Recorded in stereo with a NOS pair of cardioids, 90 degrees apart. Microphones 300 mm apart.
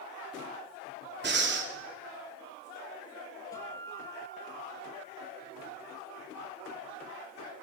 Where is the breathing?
35° right, 3.5 m.